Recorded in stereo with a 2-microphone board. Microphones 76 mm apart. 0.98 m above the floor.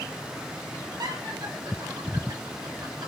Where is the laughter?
65° right (ahead or behind), 5 m; by 3.1 s 80° right, 5 m.